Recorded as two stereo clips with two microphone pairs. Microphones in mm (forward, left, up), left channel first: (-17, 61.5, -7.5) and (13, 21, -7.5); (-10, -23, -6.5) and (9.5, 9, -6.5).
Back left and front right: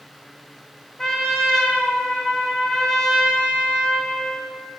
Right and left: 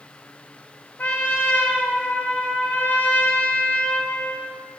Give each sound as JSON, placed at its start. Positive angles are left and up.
{"t": 1.0, "sound": "a trumpet", "azimuth_deg": -165, "distance_m": 2.0}